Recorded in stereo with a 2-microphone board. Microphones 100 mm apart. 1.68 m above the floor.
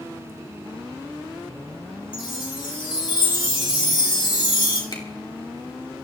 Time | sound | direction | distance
2.1 | a chime | 60° left (ahead or behind) | 4 m
4.9 | a finger snap | 45° left (ahead or behind) | 3.5 m